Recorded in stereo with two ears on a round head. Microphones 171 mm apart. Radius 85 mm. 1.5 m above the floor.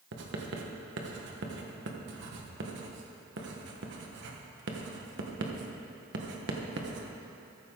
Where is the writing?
60° right (ahead or behind), 1.4 m.